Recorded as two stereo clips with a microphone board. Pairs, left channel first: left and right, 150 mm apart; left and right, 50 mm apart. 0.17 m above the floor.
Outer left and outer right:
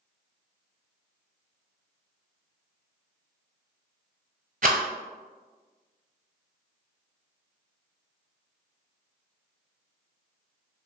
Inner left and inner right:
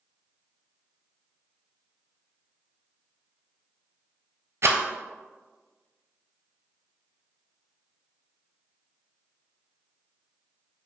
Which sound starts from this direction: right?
A rattle, at 4.6 s.